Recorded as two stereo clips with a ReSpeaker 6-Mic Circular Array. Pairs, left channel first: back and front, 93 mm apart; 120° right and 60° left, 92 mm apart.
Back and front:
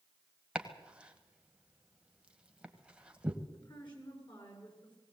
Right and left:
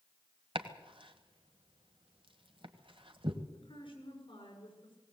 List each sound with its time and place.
0.6 s chopping: 80° left, 1.6 m
3.5 s a woman speaking: 145° right, 7 m